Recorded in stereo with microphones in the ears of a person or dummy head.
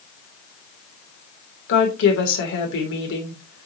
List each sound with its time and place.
1.7 s a woman speaking: 65° left (ahead or behind), 2.5 m